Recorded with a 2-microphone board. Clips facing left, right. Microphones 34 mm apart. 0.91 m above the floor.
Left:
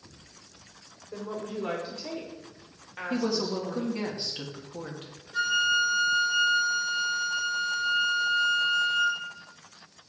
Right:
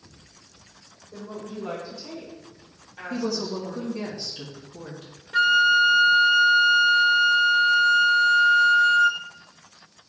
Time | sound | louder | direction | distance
1.1 | a woman speaking | left 1 dB | 70° left (ahead or behind) | 2.5 m
3.1 | a woman speaking | even | 35° left (ahead or behind) | 1.6 m
5.3 | a flute | right 7 dB | 60° right (ahead or behind) | 0.6 m